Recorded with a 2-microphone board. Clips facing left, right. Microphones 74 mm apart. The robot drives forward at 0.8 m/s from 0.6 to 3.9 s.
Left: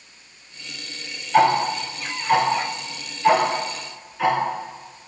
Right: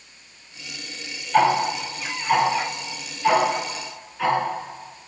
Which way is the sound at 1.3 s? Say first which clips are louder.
Left 1 dB; 5° left (ahead or behind).